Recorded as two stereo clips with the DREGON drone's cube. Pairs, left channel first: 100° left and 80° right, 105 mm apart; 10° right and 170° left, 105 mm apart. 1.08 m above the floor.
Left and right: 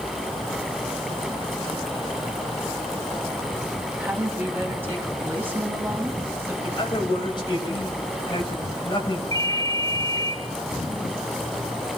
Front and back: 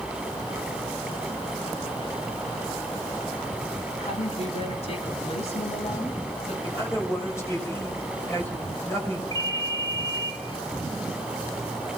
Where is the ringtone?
45° left, 3 m.